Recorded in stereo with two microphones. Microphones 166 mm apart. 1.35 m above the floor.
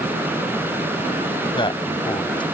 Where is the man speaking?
30° left (ahead or behind).